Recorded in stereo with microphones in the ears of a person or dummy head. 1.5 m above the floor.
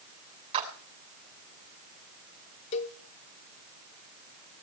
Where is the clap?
30° right (ahead or behind), 7.5 m.